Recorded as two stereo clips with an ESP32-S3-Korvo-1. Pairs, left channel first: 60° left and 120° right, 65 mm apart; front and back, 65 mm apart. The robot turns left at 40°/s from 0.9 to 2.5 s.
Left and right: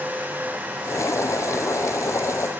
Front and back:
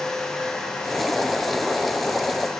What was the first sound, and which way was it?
Only background noise.